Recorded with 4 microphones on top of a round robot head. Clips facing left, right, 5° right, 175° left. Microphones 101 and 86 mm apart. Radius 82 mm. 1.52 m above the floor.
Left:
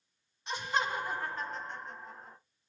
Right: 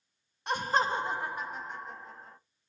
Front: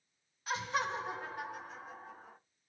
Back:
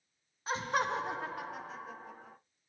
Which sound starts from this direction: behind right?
Laughter, at 0.5 s.